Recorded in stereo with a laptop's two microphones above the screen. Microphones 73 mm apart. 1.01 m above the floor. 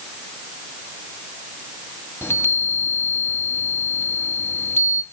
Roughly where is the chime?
Left.